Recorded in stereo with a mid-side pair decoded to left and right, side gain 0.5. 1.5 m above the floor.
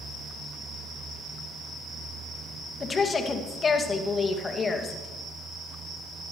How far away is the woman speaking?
About 2 m.